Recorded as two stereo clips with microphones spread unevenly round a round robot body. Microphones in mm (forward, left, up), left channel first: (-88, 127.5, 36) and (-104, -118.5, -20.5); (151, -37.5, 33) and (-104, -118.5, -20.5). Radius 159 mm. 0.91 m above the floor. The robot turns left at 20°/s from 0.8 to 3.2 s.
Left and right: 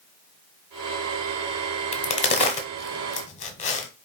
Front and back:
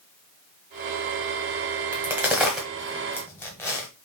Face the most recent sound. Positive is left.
turn(degrees=80)